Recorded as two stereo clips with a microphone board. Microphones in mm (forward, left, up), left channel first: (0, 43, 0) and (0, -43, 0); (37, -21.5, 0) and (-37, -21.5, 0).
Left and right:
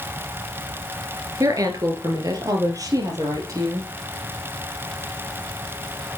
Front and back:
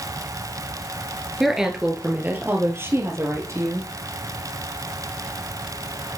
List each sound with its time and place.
1.4 s a woman speaking: 95° right, 1.6 m; by 3.9 s 135° right, 3.5 m